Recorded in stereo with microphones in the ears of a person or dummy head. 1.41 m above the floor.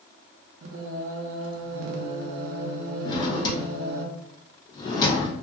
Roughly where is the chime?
I don't hear a chime.